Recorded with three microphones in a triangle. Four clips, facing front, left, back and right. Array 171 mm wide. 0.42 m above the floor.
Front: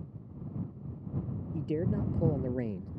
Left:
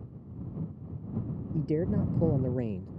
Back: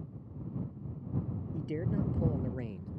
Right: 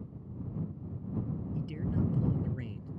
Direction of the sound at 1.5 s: 65° left.